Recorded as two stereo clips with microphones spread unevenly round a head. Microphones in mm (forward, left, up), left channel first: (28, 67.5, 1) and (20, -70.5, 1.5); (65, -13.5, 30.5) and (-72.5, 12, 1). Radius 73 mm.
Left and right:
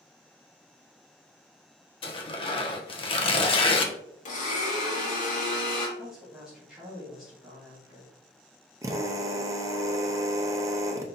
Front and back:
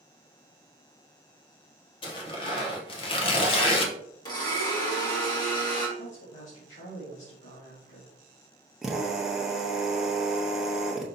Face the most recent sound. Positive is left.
turn(degrees=-75)